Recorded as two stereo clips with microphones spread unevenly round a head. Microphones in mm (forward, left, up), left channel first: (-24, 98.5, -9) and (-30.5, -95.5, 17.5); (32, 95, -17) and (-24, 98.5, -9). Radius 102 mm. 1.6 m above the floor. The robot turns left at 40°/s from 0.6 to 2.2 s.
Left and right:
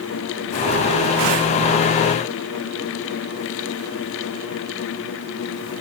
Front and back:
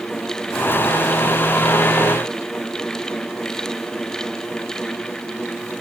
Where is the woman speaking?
No woman speaking in this recording.